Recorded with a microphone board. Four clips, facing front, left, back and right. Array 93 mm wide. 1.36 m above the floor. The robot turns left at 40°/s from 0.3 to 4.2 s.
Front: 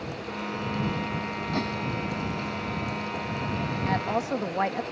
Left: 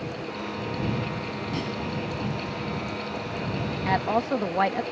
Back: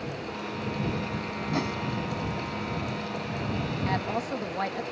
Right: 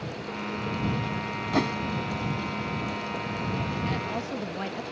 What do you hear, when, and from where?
1.5 s a whoosh: 95° right; by 1.8 s 105° right
3.9 s a woman speaking: 85° left; by 4.8 s 70° left